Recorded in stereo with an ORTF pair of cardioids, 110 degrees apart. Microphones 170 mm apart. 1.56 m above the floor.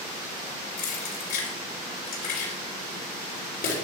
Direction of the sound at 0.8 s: 70° left.